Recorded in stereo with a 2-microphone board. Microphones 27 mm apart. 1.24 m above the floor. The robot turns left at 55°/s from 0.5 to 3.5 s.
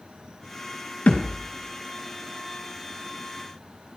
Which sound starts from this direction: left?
A thud, at 1.1 s.